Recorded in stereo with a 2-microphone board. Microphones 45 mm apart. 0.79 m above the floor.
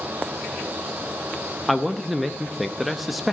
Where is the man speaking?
5° right (ahead or behind), 0.7 m.